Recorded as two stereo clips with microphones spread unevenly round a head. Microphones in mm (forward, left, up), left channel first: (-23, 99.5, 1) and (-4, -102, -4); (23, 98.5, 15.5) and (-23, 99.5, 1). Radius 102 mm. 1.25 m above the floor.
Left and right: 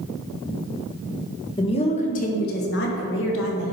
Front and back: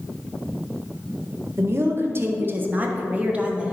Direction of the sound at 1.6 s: 165° left.